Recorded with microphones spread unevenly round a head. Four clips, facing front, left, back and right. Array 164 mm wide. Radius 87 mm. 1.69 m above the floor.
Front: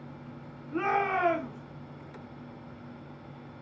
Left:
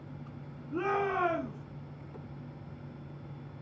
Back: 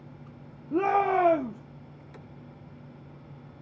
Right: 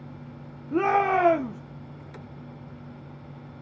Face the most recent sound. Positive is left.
turn(degrees=-135)